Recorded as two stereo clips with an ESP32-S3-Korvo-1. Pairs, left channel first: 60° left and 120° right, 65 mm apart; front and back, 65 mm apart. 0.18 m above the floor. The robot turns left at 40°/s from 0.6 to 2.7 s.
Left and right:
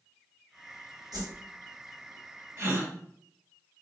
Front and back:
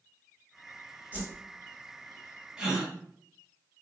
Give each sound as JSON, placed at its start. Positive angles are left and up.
{"t": 1.1, "sound": "a whoosh", "azimuth_deg": -115, "distance_m": 1.1}
{"t": 2.6, "sound": "a gasp", "azimuth_deg": -105, "distance_m": 1.1}